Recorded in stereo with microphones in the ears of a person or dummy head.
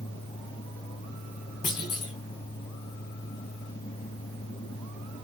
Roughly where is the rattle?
I don't hear a rattle.